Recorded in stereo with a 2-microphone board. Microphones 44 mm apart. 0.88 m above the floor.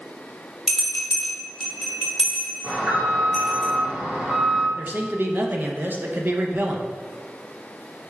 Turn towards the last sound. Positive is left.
turn(degrees=-45)  # may be behind; listen again after turning